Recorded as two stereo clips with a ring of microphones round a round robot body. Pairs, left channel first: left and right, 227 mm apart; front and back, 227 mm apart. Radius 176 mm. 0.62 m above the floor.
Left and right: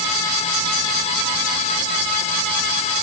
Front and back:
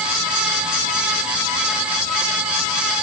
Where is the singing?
I don't hear singing.